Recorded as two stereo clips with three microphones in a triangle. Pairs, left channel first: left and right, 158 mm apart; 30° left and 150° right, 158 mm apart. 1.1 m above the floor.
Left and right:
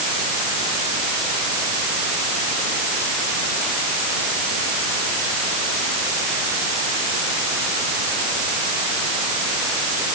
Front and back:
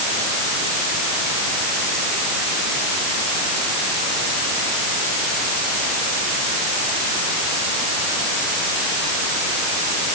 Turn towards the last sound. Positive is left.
No sound to turn to.